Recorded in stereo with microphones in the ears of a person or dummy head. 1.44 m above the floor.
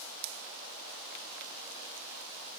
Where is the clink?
I don't hear a clink.